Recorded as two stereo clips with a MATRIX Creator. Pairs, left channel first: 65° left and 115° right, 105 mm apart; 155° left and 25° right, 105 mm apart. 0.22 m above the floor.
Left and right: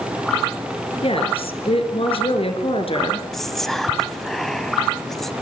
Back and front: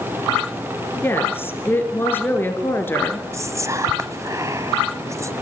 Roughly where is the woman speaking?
Left.